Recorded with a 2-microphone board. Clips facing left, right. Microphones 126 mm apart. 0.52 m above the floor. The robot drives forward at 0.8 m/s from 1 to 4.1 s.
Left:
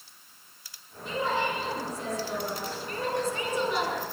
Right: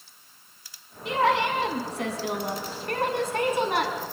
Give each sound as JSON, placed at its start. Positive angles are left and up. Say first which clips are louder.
{"t": 1.1, "sound": "a woman speaking", "louder": "right 6 dB", "side_deg": -80, "distance_m": 5.0}